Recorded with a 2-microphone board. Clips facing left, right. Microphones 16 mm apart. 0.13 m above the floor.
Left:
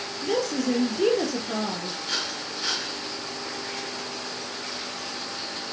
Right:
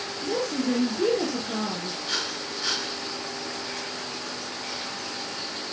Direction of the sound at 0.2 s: 30° left (ahead or behind).